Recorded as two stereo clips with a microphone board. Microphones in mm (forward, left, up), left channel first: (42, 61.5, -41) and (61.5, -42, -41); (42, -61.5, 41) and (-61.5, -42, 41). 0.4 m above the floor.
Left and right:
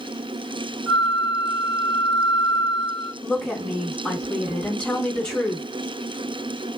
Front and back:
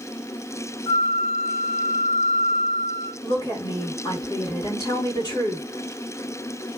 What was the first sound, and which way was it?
A flute, 15° right.